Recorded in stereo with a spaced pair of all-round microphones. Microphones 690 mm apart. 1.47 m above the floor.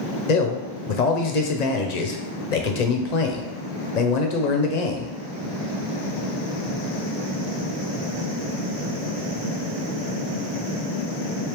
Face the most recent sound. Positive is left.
turn(degrees=75)  # may be behind; listen again after turning